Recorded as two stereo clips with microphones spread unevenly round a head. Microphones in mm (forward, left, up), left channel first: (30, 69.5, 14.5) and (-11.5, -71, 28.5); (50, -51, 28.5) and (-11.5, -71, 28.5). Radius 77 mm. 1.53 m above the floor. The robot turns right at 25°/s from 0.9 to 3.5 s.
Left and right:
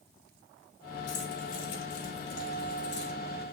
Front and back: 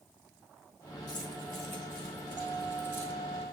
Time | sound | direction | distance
1.1 | keys jangling | 70° left | 3 m